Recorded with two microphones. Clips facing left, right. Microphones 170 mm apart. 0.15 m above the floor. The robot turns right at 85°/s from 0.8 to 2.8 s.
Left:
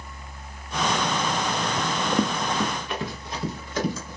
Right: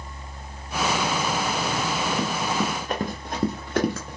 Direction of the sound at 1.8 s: 85° left.